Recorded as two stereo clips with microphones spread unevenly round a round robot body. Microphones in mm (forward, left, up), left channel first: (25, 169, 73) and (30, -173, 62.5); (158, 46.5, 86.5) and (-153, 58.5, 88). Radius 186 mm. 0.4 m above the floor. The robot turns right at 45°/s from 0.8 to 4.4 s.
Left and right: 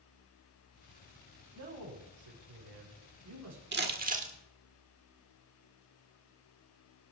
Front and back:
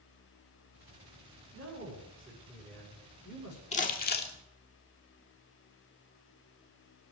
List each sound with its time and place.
1.5 s a man speaking: 140° right, 6.5 m; by 3.6 s 45° right, 6.5 m
3.7 s crumpling: 60° right, 1.6 m; by 4.3 s 30° right, 1.6 m